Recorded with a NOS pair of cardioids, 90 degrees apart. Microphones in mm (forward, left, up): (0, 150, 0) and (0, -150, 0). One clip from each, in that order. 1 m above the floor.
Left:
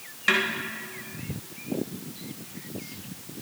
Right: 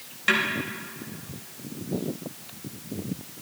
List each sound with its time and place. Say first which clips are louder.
0.3 s a snare drum: even; 5° left, 3.5 m